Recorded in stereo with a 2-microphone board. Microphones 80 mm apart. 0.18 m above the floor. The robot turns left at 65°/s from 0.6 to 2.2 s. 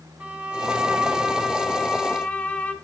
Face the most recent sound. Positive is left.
turn(degrees=20)  # may be behind; listen again after turning